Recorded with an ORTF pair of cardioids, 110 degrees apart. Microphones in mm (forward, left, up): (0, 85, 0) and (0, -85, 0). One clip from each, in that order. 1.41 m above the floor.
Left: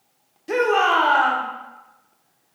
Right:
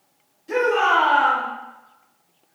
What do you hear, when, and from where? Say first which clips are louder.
0.5 s a shout: even; 55° left, 1.1 m